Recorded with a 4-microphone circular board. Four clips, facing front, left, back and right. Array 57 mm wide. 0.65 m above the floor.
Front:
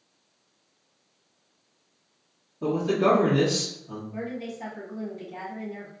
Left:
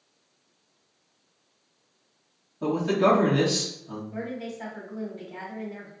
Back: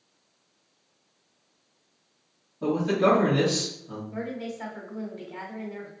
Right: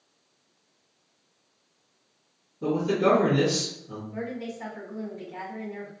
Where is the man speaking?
95° left, 1.5 m.